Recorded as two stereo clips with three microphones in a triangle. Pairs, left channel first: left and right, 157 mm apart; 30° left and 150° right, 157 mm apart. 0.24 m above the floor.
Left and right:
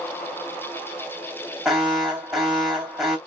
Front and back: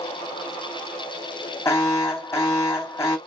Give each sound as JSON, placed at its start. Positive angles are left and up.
{"t": 1.6, "sound": "an alarm", "azimuth_deg": -10, "distance_m": 2.0}